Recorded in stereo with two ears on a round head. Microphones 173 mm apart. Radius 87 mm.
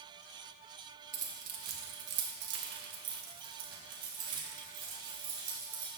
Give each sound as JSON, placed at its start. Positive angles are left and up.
{"t": 1.1, "sound": "keys jangling", "side_deg": -40, "distance_m": 1.4}